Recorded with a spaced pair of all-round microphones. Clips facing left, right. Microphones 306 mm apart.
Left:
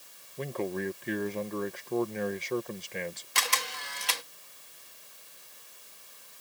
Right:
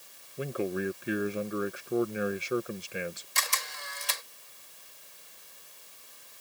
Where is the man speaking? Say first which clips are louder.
Right 1 dB; 10° right (ahead or behind).